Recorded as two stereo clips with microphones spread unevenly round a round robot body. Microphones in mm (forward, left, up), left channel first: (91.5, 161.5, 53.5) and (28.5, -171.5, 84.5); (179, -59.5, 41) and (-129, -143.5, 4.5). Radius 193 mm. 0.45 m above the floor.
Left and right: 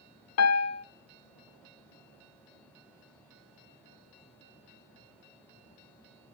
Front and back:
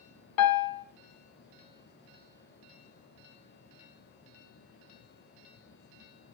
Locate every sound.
0.4 s a piano: 50° left, 0.7 m